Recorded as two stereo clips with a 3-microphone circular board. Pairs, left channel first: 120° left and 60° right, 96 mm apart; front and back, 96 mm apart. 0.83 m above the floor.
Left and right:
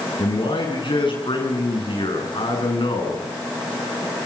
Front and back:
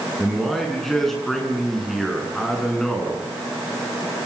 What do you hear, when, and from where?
0.2 s a man speaking: 90° left, 8 m